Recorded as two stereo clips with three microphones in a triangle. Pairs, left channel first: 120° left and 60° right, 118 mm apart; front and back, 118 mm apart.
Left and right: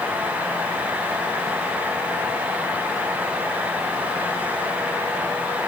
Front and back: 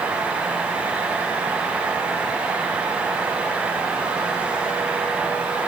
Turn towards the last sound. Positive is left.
No sound to turn to.